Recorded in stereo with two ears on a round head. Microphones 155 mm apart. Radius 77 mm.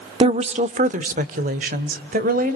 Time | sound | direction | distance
0.2 | a woman speaking | 35° right (ahead or behind) | 0.8 m